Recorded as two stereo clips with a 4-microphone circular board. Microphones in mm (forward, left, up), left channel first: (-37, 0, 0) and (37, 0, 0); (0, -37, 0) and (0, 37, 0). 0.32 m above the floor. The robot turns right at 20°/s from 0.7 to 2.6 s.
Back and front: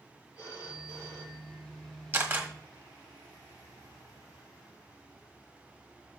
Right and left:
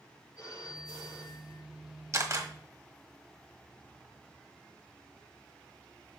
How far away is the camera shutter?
About 1.4 m.